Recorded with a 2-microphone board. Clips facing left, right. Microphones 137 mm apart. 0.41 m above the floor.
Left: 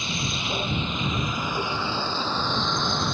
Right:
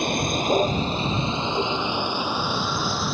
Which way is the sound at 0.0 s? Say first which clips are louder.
Right 8 dB; 55° right (ahead or behind).